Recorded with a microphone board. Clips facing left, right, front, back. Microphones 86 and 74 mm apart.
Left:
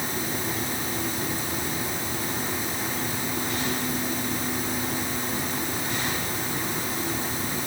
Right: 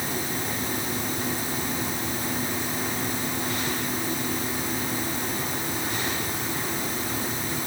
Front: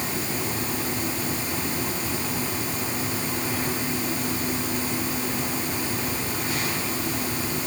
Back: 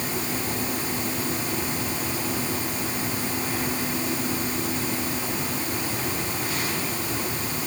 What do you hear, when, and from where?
Only background noise.